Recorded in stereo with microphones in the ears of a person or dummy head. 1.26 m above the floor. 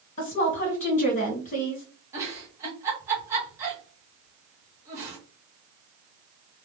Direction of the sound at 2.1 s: 15° right (ahead or behind).